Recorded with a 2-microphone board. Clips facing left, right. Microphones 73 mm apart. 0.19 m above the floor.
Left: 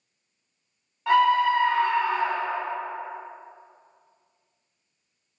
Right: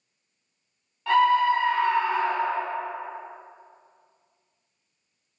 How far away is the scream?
About 1.6 m.